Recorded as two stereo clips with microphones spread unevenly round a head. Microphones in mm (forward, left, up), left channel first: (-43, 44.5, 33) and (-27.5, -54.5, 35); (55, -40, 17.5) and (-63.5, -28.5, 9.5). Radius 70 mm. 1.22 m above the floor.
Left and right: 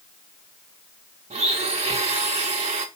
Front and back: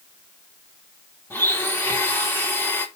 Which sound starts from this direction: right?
A blender, at 1.3 s.